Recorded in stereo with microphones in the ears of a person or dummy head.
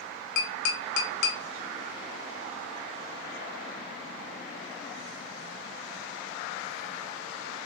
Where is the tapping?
55° left (ahead or behind), 0.7 m.